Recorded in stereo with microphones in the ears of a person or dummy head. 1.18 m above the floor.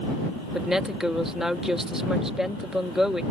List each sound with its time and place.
0.5 s a woman speaking: 5° right (ahead or behind)